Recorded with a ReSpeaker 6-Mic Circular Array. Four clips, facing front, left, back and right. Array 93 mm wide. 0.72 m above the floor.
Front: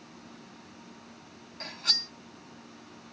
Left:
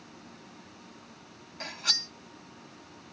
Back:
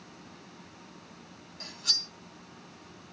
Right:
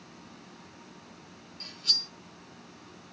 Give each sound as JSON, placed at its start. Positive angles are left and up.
{"t": 1.6, "sound": "cutlery clinking", "azimuth_deg": 65, "distance_m": 0.7}